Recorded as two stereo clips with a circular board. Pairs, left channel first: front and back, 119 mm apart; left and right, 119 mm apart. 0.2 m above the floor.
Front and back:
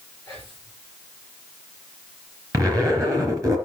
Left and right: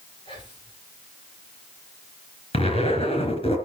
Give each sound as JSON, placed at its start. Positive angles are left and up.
{"t": 0.2, "sound": "whispering", "azimuth_deg": 140, "distance_m": 5.5}
{"t": 2.5, "sound": "a zipper", "azimuth_deg": 120, "distance_m": 3.5}